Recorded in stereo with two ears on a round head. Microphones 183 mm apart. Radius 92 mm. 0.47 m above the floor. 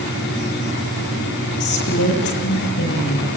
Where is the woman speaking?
60° left (ahead or behind), 9 m.